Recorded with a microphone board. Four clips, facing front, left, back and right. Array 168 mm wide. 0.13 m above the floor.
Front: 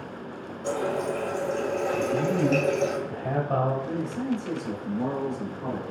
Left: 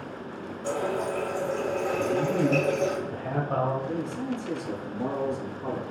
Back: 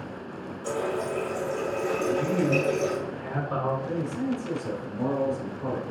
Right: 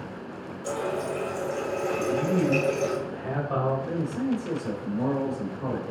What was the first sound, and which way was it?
A running tap, 40° left.